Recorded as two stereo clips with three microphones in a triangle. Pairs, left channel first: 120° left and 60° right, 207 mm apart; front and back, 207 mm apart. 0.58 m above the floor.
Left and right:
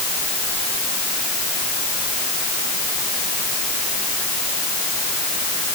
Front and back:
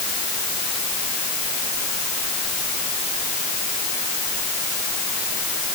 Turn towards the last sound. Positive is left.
No sound to turn to.